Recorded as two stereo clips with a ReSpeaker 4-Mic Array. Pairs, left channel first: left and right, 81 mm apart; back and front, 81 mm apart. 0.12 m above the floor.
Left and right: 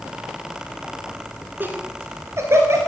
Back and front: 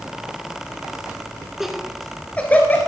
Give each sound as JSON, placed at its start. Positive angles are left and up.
{"t": 1.6, "sound": "laughter", "azimuth_deg": -80, "distance_m": 1.3}